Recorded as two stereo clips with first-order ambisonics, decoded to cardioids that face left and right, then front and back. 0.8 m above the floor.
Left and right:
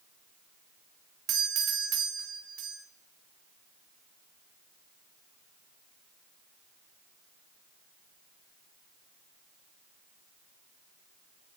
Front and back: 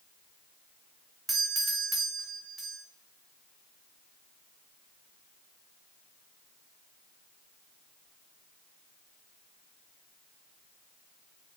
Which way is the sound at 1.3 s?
105° right.